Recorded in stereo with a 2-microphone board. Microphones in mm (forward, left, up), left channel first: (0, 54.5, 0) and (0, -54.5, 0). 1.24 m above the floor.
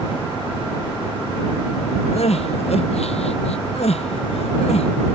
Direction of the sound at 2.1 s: 75° left (ahead or behind).